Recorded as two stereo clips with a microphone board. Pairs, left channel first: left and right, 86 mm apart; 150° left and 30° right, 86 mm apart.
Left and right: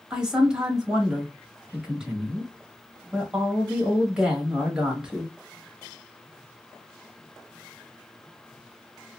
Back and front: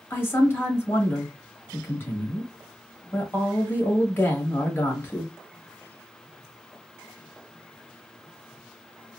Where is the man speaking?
165° right, 1.2 m.